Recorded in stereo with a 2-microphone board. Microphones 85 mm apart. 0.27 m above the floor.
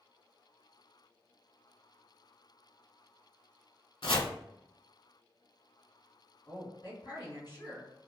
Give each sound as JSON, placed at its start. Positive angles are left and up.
{"t": 4.0, "sound": "chopping", "side_deg": 90, "distance_m": 0.5}
{"t": 6.5, "sound": "a woman speaking", "side_deg": 50, "distance_m": 1.5}